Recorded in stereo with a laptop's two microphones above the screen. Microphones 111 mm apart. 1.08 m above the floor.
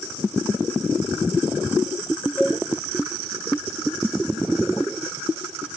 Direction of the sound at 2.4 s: 15° left (ahead or behind).